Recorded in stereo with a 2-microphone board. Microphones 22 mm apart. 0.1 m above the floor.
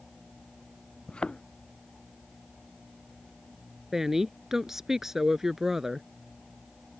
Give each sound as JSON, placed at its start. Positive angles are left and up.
{"t": 1.1, "sound": "a thud", "side_deg": 40}
{"t": 3.9, "sound": "a woman speaking", "side_deg": -20}